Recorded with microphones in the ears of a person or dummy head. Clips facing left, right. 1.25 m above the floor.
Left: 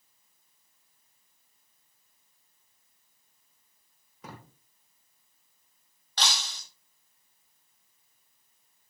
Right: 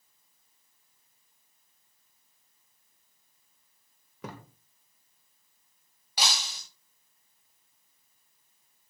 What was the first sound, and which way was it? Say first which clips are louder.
A thud: right 4 dB; 50° right (ahead or behind).